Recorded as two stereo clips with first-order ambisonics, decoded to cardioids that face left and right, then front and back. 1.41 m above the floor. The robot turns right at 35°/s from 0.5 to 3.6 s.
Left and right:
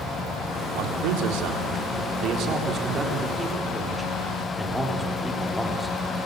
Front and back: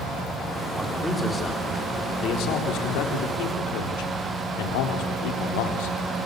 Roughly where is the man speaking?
Right.